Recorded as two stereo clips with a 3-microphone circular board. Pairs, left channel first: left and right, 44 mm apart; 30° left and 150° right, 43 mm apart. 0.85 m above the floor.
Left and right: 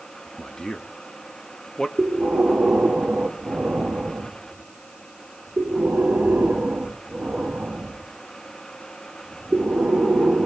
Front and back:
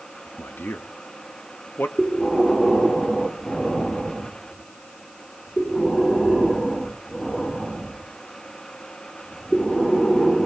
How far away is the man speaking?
About 1.4 m.